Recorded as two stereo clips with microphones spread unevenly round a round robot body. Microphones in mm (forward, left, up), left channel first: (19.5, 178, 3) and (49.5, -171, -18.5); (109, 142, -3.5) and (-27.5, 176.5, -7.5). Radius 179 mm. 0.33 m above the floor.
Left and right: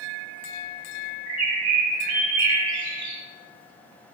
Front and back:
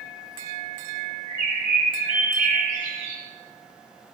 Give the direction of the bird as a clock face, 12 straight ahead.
3 o'clock.